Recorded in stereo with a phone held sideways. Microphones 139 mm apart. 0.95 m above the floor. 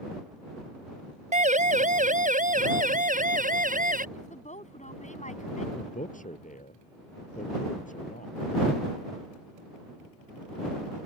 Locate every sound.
1.3 s a siren: 65° right (ahead or behind); by 4.0 s 85° right
4.2 s a woman speaking: 60° left (ahead or behind)
5.8 s a man speaking: 70° left (ahead or behind)